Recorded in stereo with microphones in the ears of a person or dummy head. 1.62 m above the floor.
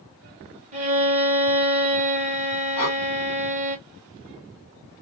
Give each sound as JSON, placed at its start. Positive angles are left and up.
{"t": 0.7, "sound": "a violin", "side_deg": -40, "distance_m": 1.2}
{"t": 2.8, "sound": "breathing", "side_deg": 20, "distance_m": 0.9}